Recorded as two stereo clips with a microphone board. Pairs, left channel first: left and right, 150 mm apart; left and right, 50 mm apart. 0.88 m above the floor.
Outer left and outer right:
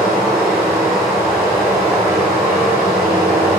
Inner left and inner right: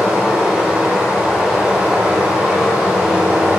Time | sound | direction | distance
0.0 | running water | 15° right (ahead or behind) | 1.8 m